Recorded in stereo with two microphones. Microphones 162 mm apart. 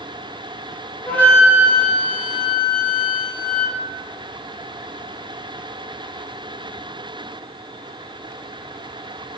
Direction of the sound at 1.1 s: 10° left (ahead or behind).